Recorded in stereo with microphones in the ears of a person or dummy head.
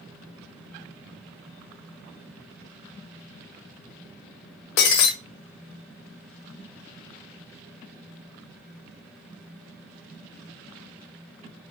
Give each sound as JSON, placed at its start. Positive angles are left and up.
{"t": 4.8, "sound": "breaking glass", "side_deg": 50, "distance_m": 1.2}